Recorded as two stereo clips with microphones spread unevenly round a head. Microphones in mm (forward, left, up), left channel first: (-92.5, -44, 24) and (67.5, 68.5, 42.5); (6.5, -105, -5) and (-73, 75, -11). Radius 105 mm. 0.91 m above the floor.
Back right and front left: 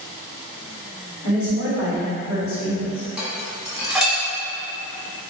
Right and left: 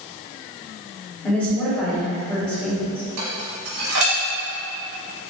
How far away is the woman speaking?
About 1.7 m.